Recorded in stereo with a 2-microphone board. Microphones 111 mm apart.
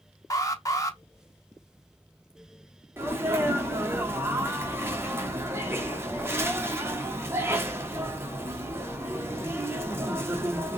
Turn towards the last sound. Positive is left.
turn(degrees=-20)  # may be behind; listen again after turning